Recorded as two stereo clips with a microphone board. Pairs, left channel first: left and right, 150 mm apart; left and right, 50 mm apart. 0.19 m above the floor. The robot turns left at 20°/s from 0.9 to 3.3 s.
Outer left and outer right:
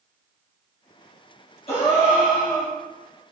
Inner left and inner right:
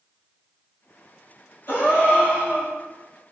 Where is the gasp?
50° left (ahead or behind), 1.1 m; by 2.7 s 30° left (ahead or behind), 1.1 m.